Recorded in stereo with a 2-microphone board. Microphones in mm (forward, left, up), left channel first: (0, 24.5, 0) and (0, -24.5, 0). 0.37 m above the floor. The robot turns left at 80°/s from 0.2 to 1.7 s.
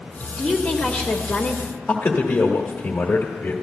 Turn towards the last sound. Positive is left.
turn(degrees=35)  # may be behind; listen again after turning